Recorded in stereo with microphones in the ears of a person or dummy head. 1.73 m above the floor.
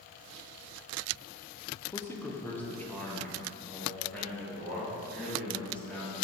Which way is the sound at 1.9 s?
15° left (ahead or behind).